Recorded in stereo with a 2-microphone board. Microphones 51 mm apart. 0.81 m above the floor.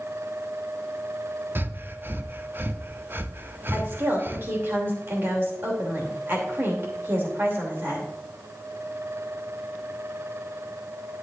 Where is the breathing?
45° right (ahead or behind), 0.5 m.